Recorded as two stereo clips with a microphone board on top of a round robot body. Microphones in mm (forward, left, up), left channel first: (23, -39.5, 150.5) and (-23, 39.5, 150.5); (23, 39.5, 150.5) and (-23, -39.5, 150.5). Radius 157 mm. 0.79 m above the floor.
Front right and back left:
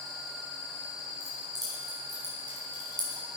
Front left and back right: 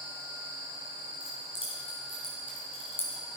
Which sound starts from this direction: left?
Keys jangling, at 1.2 s.